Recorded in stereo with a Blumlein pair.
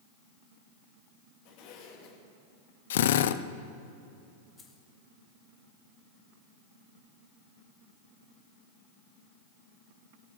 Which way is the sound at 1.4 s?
45° left.